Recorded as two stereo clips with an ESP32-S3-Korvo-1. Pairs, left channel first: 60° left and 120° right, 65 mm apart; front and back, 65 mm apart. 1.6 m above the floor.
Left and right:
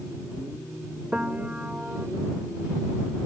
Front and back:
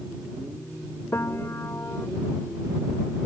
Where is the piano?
50° right.